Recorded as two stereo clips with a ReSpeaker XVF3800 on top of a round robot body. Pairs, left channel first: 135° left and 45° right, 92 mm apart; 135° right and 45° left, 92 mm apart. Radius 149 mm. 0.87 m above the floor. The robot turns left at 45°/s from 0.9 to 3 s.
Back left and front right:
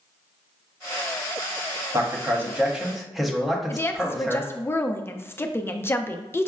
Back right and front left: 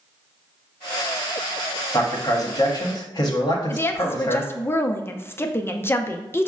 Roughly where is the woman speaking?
Behind.